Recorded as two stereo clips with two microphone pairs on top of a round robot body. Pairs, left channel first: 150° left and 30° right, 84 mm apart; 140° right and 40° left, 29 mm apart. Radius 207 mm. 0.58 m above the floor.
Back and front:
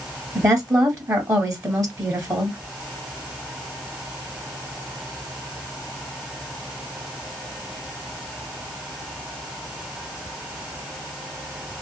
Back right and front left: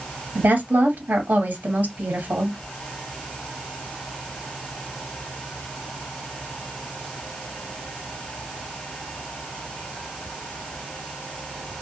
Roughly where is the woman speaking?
Ahead left.